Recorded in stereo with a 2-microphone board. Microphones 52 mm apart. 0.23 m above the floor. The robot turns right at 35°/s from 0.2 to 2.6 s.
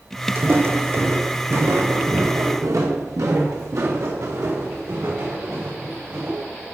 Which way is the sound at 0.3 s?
45° right (ahead or behind).